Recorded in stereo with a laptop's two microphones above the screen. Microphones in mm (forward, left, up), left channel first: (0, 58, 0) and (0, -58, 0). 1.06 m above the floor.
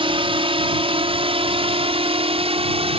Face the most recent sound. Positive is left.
turn(degrees=-55)  # may be behind; listen again after turning